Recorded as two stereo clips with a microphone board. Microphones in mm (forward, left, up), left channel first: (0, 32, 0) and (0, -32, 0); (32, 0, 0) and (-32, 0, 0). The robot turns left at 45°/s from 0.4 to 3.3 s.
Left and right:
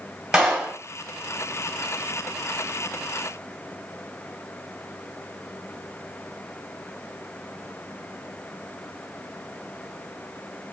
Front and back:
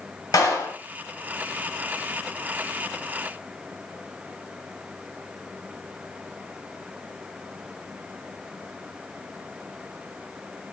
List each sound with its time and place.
0.3 s a clap: 10° right, 2.0 m; by 0.8 s 25° right, 2.0 m